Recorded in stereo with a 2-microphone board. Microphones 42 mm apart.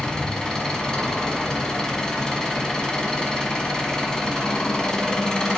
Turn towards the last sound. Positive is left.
turn(degrees=15)  # may be behind; listen again after turning